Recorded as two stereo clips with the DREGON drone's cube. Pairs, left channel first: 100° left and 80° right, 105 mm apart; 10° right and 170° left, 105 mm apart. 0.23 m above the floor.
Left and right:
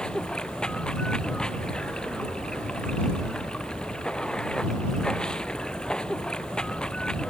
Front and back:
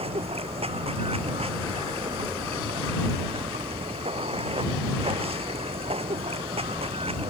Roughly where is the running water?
Behind.